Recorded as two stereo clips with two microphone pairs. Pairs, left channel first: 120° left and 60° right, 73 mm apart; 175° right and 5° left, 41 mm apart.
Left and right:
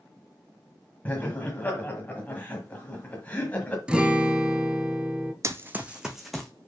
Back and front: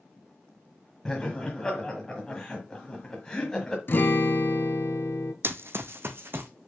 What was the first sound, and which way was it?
Laughter, 125° left.